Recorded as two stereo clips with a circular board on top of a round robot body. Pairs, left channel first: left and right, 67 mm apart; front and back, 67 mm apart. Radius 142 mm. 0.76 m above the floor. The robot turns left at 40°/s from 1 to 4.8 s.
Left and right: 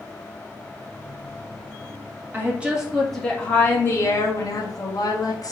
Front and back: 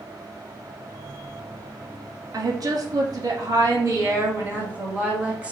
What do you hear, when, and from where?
2.3 s a woman speaking: 155° right, 1.6 m; by 5.5 s 110° left, 1.6 m